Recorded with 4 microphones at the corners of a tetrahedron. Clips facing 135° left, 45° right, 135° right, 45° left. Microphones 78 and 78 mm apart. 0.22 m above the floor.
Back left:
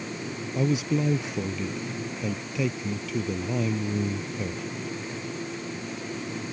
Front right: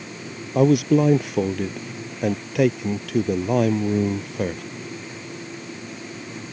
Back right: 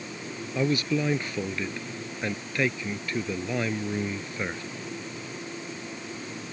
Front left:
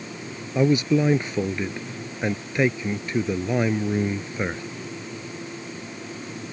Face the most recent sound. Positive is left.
turn(degrees=-25)